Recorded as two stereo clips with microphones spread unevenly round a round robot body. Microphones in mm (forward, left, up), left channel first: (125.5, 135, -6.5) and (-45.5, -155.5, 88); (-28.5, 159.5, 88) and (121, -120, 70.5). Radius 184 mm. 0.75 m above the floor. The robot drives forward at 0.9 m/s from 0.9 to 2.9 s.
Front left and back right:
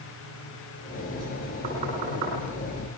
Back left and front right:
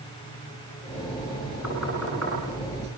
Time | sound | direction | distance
1.6 | knocking | 175° left | 9 m